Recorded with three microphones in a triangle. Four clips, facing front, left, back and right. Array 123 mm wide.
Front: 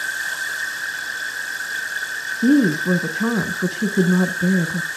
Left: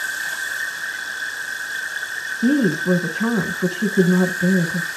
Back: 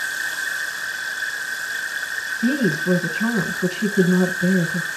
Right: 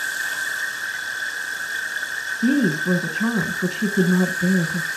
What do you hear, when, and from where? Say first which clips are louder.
2.4 s a woman speaking: left 2 dB, front 5 dB; 35° left, 1.1 m